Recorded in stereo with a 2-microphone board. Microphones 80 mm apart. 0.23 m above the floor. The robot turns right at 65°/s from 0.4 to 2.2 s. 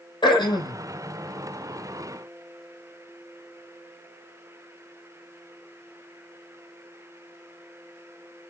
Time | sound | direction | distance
0.2 | throat clearing | 70° left (ahead or behind) | 1.8 m